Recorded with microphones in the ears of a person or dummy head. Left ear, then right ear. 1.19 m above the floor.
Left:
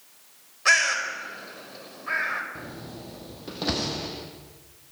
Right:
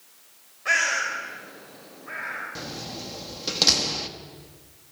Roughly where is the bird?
Left.